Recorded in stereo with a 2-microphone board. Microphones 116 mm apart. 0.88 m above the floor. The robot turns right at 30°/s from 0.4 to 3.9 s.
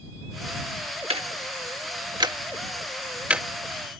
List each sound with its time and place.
1.1 s ticking: 60° right (ahead or behind); by 4.0 s 5° left (ahead or behind)